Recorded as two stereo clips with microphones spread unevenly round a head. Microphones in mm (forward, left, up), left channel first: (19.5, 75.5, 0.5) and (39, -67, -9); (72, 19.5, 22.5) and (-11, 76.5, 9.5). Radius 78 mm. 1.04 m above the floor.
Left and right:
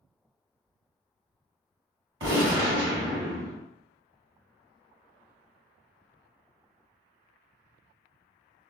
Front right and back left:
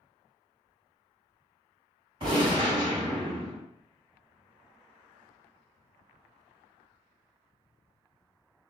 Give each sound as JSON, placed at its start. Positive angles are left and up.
{"t": 2.2, "sound": "a gunshot", "azimuth_deg": -150, "distance_m": 1.0}